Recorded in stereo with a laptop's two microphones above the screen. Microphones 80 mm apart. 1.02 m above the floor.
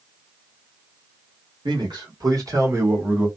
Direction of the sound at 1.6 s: 70° right (ahead or behind).